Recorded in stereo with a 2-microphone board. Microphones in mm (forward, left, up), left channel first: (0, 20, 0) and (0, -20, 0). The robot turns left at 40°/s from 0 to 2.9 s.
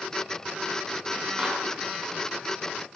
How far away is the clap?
About 5 m.